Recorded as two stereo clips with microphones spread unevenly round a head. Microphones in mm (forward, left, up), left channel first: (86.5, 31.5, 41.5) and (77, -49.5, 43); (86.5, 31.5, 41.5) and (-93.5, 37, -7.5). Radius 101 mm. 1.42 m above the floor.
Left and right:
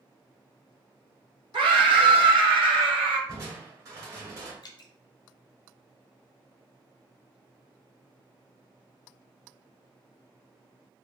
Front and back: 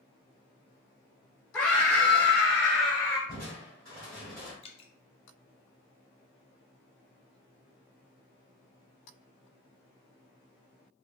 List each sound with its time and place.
1.5 s a scream: 85° right, 0.8 m
3.3 s crushing: 70° right, 1.4 m
4.6 s dripping: 50° left, 0.5 m